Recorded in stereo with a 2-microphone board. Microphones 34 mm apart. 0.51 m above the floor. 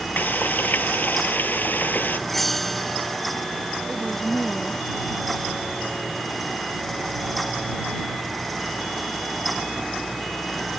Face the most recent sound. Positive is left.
turn(degrees=5)  # may be behind; listen again after turning